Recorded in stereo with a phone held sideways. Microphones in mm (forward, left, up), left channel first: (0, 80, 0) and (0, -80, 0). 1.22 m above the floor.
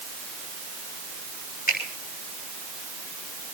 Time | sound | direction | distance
1.7 | a finger snap | 60° left (ahead or behind) | 6.5 m